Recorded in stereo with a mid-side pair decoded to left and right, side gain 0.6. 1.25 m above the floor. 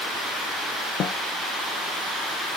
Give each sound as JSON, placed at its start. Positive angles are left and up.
{"t": 1.0, "sound": "a snare drum", "azimuth_deg": 45, "distance_m": 0.8}